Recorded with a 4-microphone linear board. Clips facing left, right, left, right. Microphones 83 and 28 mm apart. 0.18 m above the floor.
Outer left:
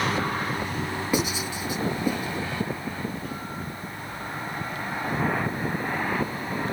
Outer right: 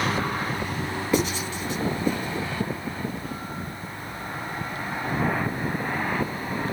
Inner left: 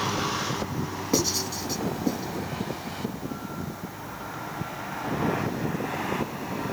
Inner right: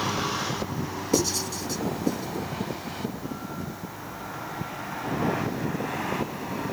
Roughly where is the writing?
Centre.